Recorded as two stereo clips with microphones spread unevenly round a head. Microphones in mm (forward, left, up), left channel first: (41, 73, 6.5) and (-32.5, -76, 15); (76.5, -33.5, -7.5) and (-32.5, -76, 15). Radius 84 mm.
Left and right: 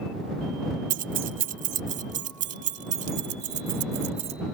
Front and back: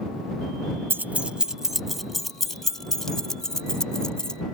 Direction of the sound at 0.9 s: 105° right.